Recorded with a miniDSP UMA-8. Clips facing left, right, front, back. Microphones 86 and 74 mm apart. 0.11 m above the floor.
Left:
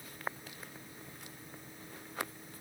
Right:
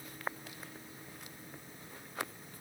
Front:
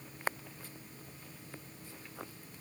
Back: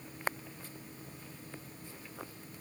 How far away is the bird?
I don't hear a bird.